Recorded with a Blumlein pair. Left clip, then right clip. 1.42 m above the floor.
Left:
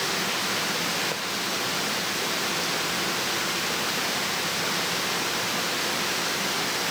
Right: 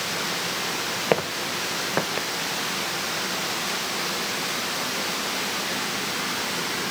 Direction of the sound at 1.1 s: 55° right.